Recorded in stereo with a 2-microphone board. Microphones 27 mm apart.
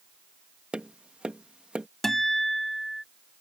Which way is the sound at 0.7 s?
40° right (ahead or behind).